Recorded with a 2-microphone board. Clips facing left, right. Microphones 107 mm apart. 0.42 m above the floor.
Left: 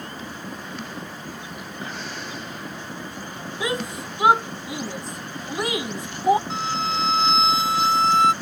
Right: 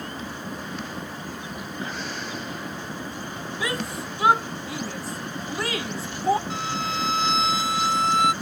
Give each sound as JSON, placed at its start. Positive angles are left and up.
{"t": 3.6, "sound": "a shout", "side_deg": 25}
{"t": 6.5, "sound": "a violin", "side_deg": 30}